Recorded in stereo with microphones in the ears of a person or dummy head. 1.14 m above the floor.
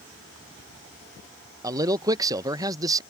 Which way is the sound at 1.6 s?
20° right (ahead or behind).